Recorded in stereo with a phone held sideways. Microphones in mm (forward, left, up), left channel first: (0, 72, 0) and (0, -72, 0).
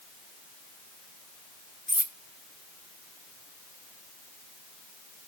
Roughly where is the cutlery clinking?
Right.